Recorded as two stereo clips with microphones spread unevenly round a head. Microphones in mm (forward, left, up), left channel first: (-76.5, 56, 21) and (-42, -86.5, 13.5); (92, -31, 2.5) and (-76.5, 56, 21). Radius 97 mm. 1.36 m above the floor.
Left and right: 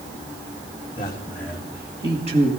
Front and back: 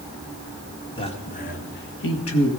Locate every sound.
1.0 s a man speaking: 35° left, 2.5 m; by 2.5 s 25° right, 2.5 m